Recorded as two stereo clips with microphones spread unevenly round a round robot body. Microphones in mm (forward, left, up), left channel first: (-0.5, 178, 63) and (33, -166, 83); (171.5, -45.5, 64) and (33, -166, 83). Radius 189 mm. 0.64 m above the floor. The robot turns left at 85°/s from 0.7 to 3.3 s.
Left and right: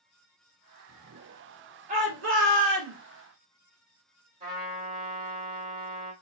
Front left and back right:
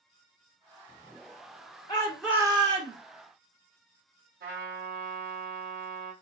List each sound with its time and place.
1.9 s a shout: 20° right, 1.7 m; by 3.0 s 110° right, 1.7 m
4.4 s a trumpet: 150° right, 2.0 m